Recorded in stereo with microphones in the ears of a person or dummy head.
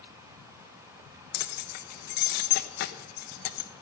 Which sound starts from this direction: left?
Keys jangling, at 1.3 s.